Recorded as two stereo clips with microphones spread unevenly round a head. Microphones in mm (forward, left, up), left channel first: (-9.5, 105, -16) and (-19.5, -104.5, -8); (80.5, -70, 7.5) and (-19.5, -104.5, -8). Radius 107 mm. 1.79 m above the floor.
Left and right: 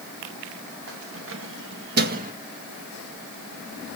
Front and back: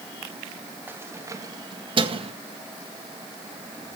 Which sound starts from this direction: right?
Keys jangling, at 0.9 s.